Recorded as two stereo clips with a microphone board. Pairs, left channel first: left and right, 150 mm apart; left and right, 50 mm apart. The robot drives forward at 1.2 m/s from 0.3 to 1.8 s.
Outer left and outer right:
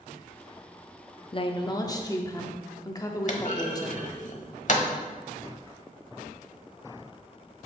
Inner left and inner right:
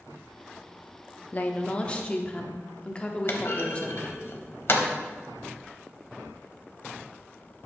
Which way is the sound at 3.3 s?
55° left (ahead or behind).